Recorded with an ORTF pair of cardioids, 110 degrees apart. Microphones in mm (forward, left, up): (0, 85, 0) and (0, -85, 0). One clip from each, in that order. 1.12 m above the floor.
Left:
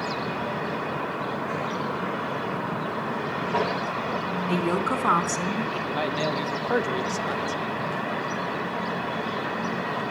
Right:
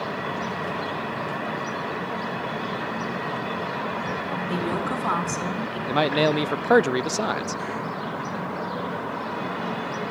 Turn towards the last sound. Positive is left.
turn(degrees=-40)